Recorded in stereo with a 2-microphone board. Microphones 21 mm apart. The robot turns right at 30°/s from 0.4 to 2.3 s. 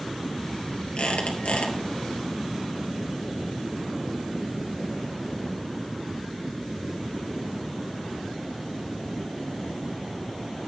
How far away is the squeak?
About 2 m.